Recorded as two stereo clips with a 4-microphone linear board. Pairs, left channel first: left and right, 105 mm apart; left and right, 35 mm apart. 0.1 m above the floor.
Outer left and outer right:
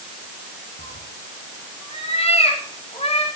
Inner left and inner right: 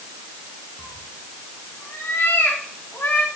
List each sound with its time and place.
0.8 s a cat meowing: 80° left, 4 m; by 3.3 s 75° left (ahead or behind), 5.5 m